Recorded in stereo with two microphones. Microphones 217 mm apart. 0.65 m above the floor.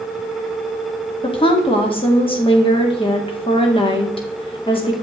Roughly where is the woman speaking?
Left.